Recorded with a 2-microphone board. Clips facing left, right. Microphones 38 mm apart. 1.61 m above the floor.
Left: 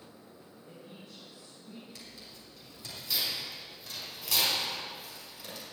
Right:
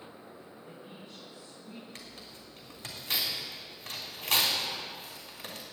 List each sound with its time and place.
0.6 s a woman speaking: 40° right (ahead or behind), 4 m; by 1.9 s 25° right (ahead or behind), 3.5 m
1.9 s tearing paper: 60° right (ahead or behind), 3 m